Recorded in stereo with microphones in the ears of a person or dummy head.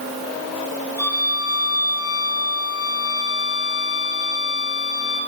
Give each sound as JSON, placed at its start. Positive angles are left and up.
{"t": 1.0, "sound": "a violin", "side_deg": 10, "distance_m": 3.0}